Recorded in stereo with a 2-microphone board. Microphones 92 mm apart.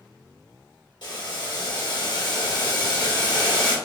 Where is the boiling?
65° left (ahead or behind), 1.5 m.